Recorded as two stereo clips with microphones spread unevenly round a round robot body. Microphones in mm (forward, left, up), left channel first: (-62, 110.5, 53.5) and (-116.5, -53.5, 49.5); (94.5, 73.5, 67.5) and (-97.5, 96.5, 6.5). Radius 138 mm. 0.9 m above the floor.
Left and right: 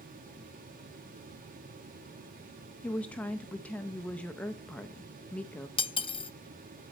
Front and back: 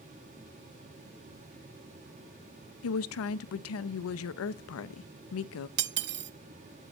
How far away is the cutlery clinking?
About 0.6 m.